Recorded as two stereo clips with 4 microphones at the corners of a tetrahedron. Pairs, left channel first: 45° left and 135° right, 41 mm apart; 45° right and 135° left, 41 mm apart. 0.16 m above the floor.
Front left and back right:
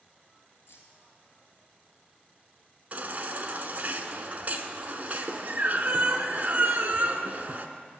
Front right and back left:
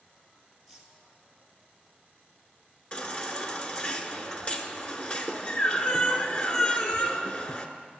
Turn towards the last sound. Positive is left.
turn(degrees=-95)